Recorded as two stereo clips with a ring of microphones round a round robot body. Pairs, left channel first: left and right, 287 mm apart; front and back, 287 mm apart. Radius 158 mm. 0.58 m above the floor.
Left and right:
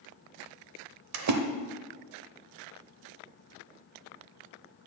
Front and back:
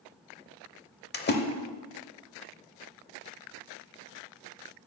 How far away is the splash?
About 1.0 m.